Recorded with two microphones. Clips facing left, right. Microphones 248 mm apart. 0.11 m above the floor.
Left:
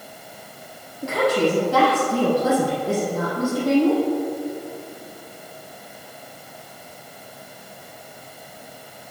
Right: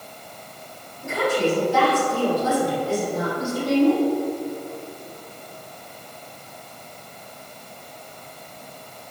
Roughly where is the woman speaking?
Left.